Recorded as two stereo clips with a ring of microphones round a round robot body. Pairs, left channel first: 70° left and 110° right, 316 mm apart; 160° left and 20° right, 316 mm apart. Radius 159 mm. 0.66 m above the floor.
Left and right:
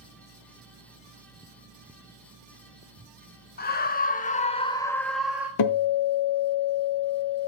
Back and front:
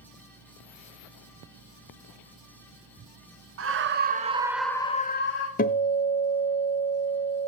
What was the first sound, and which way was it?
A scream, 15° left.